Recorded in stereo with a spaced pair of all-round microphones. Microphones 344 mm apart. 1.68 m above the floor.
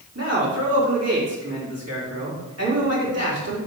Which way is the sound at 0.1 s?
45° right (ahead or behind).